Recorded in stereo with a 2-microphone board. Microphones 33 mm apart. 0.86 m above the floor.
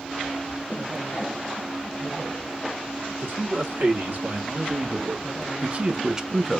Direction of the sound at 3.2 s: 60° right (ahead or behind).